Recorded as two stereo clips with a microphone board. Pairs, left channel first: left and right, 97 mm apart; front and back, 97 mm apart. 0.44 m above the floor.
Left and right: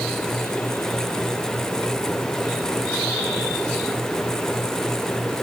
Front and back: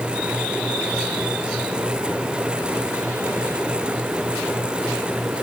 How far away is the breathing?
I don't hear breathing.